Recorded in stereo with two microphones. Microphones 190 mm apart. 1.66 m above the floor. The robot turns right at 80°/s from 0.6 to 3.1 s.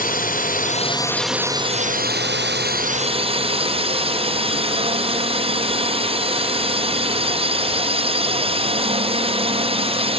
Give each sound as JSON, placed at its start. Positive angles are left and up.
{"t": 0.0, "sound": "a drone", "azimuth_deg": 125}